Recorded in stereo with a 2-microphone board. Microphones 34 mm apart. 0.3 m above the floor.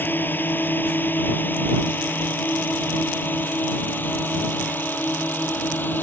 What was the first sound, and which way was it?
A drone, 80° left.